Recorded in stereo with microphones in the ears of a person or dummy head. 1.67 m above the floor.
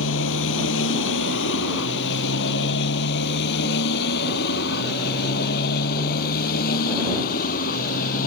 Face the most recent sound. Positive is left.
turn(degrees=45)  # may be behind; listen again after turning